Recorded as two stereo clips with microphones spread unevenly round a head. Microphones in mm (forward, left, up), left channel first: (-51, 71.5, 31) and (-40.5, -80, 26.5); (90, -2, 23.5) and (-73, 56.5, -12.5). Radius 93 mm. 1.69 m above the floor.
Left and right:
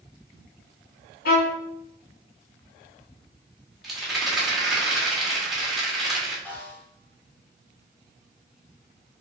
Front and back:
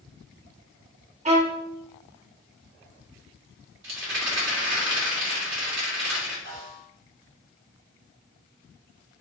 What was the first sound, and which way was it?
A violin, 105° left.